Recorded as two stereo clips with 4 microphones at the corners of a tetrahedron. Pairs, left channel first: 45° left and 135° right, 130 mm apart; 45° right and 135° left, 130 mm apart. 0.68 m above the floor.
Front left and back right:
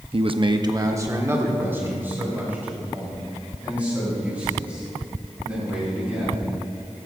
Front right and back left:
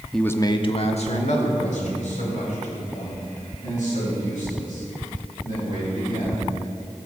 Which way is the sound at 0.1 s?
130° right.